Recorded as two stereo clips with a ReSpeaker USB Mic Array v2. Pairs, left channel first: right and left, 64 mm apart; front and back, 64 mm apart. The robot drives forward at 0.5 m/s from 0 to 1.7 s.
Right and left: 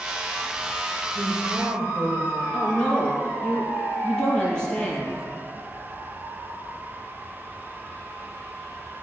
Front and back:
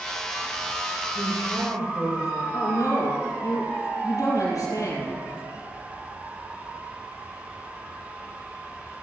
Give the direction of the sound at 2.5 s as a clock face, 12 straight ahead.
12 o'clock.